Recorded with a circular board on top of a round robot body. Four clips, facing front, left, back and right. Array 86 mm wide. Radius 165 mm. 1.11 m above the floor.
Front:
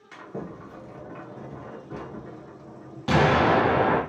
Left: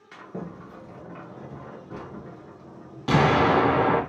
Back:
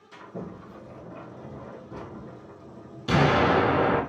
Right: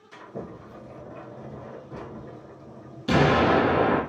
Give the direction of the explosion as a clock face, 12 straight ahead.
10 o'clock.